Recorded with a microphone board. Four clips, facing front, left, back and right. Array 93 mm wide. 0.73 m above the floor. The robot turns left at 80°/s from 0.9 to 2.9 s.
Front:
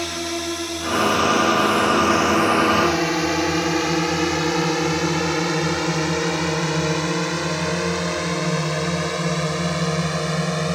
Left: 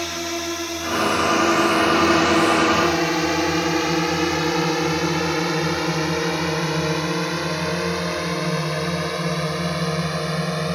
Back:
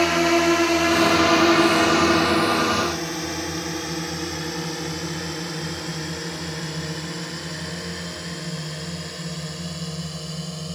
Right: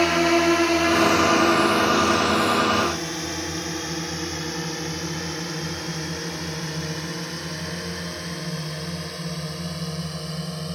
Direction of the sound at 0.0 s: 135° right.